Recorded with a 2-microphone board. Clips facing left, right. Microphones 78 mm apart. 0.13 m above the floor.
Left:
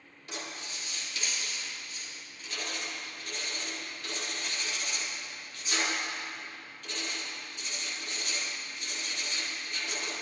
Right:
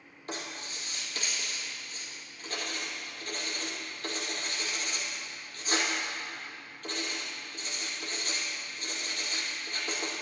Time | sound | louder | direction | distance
0.3 | writing | right 2 dB | 45° right (ahead or behind) | 5 m